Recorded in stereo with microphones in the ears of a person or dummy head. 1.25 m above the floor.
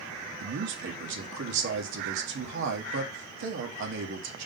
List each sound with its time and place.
0.4 s a man speaking: 65° right (ahead or behind), 1.9 m